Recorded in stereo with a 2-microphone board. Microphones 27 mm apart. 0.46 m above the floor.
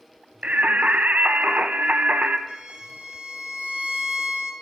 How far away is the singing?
About 0.6 m.